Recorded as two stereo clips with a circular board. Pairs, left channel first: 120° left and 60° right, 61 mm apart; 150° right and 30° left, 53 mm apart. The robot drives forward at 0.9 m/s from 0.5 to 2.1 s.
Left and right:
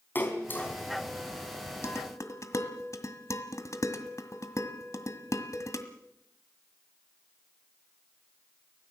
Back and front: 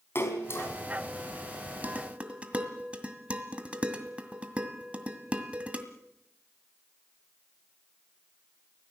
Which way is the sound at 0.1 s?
175° left.